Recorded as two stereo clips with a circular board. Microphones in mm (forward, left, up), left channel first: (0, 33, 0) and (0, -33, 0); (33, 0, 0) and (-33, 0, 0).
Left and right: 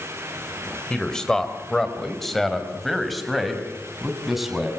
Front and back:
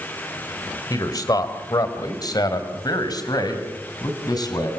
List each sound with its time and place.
0.9 s a man speaking: 10° left, 3.5 m; by 4.7 s straight ahead, 6 m